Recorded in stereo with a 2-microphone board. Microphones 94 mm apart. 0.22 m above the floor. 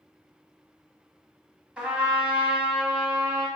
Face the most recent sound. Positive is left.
turn(degrees=-10)  # may be behind; listen again after turning